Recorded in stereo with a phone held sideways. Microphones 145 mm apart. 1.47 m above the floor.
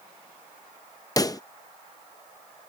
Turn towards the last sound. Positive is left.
turn(degrees=25)  # may be behind; listen again after turning